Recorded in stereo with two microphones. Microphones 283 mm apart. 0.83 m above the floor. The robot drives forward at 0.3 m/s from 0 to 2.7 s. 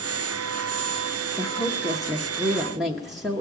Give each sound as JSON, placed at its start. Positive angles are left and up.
{"t": 1.4, "sound": "a woman speaking", "side_deg": 0, "distance_m": 1.0}